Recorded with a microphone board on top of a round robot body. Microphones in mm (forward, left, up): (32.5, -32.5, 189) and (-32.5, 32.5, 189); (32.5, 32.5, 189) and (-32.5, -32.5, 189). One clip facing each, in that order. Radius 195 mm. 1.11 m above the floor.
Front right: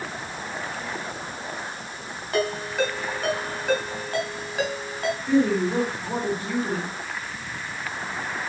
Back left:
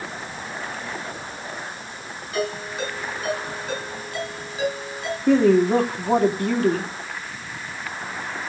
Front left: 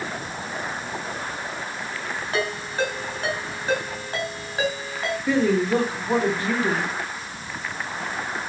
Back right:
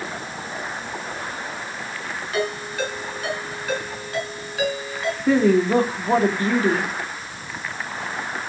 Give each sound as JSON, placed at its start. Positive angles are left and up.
{"t": 2.3, "sound": "a ringtone", "azimuth_deg": -20, "distance_m": 6.5}
{"t": 5.3, "sound": "a woman speaking", "azimuth_deg": 170, "distance_m": 3.0}